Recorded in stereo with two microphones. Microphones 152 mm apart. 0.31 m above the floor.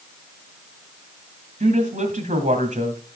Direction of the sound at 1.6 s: 55° right (ahead or behind).